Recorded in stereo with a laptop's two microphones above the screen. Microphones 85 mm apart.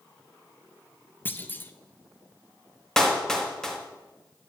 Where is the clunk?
25° left (ahead or behind), 0.6 m.